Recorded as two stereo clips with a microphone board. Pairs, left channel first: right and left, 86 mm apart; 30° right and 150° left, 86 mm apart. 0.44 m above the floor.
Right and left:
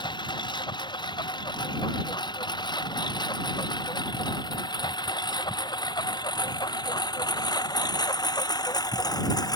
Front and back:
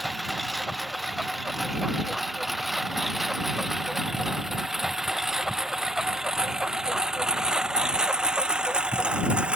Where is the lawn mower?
120° right; by 9.6 s 135° right.